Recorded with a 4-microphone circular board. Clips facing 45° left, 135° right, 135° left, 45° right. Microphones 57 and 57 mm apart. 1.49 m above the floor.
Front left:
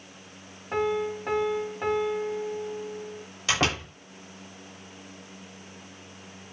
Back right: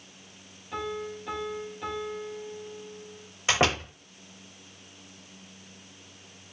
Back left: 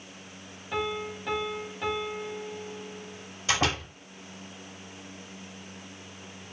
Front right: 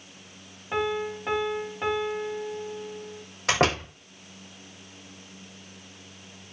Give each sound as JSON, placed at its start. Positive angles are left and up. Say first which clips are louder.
{"t": 0.7, "sound": "a piano", "louder": "front left 7 dB, front right 4 dB", "azimuth_deg": 15, "distance_m": 2.5}
{"t": 3.5, "sound": "a door slam", "louder": "back right 2 dB, front right 4 dB", "azimuth_deg": -65, "distance_m": 6.0}